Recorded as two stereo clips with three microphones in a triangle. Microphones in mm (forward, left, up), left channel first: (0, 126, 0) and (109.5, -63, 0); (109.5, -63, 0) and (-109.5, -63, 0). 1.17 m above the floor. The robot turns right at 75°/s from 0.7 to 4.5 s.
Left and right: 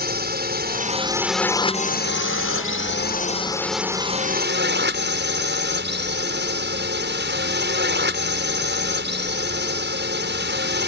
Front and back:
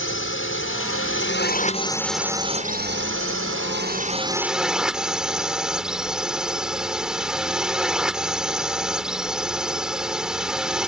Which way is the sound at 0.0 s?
20° right.